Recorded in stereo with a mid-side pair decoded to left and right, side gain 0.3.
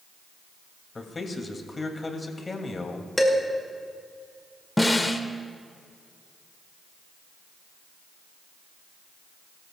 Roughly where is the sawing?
I don't hear sawing.